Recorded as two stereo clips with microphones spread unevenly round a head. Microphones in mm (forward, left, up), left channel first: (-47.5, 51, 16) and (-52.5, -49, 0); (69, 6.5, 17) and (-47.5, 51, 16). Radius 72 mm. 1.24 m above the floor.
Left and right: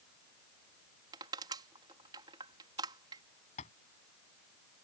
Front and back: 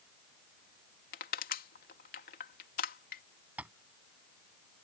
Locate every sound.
1.1 s crushing: 35° right
3.6 s tapping: 80° left